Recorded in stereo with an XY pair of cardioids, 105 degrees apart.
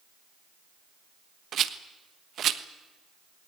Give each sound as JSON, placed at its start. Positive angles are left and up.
{"t": 1.5, "sound": "a rattle", "azimuth_deg": -60, "distance_m": 1.3}